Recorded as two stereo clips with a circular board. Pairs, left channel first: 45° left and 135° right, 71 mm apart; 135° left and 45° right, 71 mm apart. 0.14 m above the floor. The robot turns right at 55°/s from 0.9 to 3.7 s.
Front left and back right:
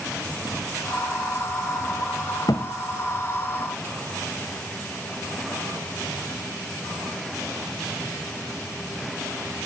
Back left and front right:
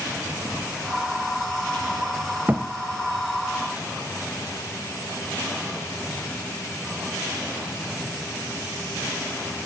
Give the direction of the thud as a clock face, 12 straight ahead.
11 o'clock.